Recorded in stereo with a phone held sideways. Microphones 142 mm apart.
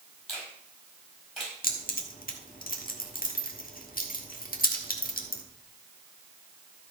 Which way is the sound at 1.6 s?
85° left.